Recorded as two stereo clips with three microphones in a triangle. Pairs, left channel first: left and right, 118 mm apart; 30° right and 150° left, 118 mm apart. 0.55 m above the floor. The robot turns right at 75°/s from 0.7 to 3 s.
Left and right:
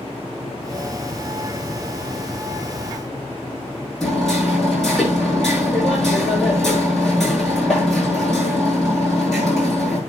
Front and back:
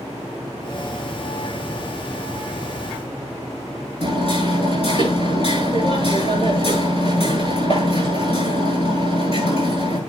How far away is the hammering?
About 8.5 m.